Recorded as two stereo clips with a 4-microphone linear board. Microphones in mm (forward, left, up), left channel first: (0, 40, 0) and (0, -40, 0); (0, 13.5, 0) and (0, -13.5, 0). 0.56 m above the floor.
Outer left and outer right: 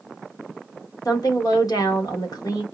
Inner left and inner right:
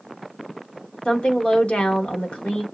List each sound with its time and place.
1.1 s a woman speaking: 50° left (ahead or behind), 1.3 m